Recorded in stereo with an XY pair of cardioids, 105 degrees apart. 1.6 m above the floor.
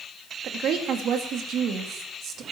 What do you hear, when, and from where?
0.4 s a woman speaking: 70° right, 2.5 m